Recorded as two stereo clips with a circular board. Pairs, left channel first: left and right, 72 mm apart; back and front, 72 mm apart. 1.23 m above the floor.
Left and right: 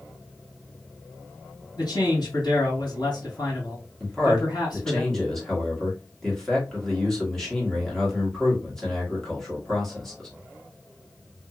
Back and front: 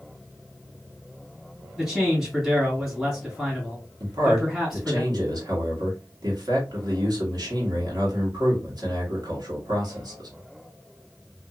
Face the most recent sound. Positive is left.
turn(degrees=5)